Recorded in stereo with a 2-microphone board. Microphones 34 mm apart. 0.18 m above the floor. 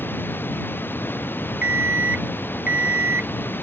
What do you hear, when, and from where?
0.0 s running water: 80° left
1.6 s an alarm clock: 40° right (ahead or behind)